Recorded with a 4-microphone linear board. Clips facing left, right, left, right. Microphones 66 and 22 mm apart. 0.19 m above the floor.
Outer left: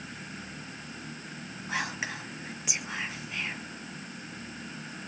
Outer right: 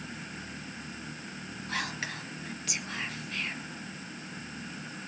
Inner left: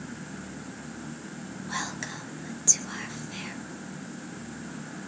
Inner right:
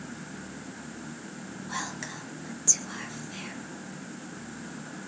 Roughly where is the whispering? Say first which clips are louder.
Outer left 2 dB, inner left 2 dB; centre.